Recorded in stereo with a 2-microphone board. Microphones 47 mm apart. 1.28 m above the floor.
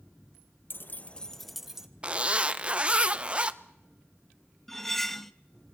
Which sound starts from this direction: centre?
Cutlery clinking, at 4.7 s.